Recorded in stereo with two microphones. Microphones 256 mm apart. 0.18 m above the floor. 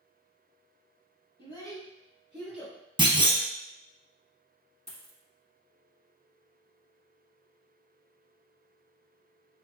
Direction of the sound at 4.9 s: 25° right (ahead or behind).